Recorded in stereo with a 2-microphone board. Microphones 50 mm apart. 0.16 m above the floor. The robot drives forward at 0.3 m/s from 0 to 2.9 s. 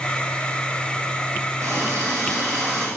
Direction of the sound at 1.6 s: 75° right (ahead or behind).